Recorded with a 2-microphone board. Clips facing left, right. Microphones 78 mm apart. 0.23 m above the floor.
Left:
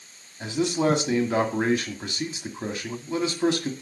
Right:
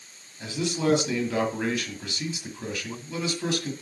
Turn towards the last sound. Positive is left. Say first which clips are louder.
# left 3 dB
turn(degrees=35)  # may be behind; listen again after turning